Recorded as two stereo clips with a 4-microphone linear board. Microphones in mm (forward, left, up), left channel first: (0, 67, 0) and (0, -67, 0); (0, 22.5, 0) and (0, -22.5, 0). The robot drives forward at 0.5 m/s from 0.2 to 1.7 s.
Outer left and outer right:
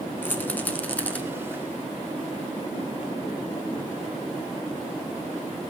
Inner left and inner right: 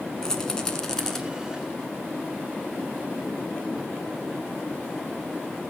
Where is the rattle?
15° left (ahead or behind), 1.4 m; by 1.2 s 10° left (ahead or behind), 1.7 m.